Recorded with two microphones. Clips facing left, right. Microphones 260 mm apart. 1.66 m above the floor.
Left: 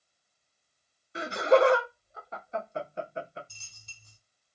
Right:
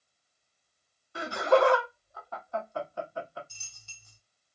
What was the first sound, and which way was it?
Laughter, 20° left (ahead or behind).